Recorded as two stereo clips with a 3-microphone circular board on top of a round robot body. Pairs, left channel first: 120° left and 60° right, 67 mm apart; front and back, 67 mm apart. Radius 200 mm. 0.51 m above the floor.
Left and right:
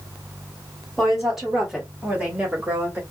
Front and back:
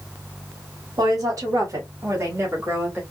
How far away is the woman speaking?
About 2.5 m.